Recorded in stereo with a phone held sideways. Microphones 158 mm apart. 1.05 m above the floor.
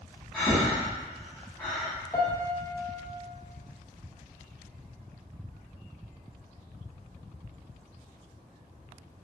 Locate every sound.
0.3 s breathing: centre (ahead or behind), 1.2 m
2.1 s a piano: 25° left (ahead or behind), 0.5 m